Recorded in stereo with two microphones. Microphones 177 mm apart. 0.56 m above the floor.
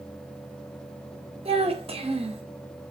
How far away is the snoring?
I don't hear snoring.